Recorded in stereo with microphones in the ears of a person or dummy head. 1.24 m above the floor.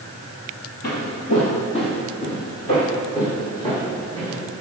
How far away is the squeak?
I don't hear a squeak.